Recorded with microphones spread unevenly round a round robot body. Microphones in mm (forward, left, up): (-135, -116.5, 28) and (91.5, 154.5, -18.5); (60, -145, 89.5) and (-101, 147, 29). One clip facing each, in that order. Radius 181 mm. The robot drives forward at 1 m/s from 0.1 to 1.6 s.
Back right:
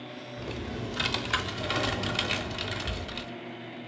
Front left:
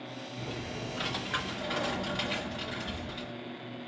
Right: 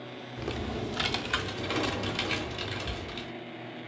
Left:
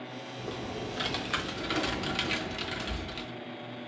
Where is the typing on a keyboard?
40° right, 0.8 m; by 3.3 s 155° right, 1.1 m.